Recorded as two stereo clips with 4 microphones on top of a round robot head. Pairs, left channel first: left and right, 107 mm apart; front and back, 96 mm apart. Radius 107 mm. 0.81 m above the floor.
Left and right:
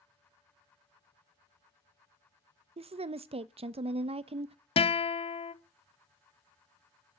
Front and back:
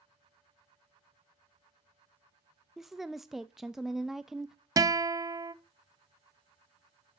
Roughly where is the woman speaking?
Right.